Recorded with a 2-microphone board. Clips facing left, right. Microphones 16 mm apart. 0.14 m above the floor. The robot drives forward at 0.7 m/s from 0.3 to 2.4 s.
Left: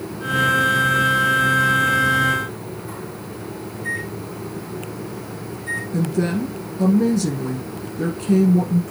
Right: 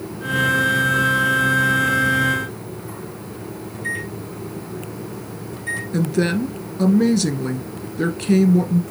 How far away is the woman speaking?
About 1.2 m.